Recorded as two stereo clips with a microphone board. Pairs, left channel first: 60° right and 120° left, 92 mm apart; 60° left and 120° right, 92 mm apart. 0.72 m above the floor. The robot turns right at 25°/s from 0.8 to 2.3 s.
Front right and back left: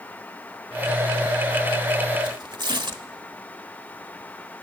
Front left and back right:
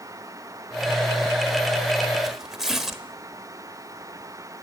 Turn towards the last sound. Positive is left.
turn(degrees=155)